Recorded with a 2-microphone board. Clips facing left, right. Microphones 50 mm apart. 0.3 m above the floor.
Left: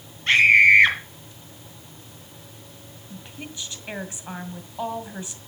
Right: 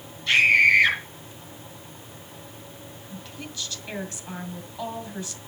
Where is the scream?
40° left (ahead or behind), 2.5 m.